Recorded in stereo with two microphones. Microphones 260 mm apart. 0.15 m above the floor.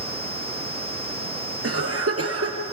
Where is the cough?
65° right (ahead or behind), 3 m.